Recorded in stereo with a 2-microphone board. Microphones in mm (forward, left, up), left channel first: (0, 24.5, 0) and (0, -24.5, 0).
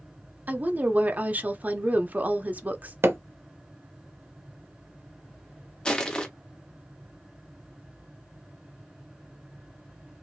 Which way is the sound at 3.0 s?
65° right (ahead or behind).